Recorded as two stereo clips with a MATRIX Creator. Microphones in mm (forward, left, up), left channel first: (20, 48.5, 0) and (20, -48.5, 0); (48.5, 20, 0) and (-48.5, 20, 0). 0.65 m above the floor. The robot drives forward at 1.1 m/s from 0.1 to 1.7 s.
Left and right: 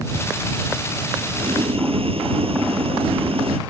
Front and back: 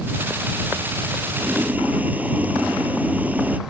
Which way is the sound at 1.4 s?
105° right.